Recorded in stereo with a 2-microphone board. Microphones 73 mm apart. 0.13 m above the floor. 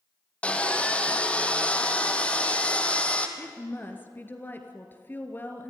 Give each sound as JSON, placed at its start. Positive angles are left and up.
{"t": 0.4, "sound": "sawing", "side_deg": 15, "distance_m": 1.8}
{"t": 3.4, "sound": "a woman speaking", "side_deg": 30, "distance_m": 2.5}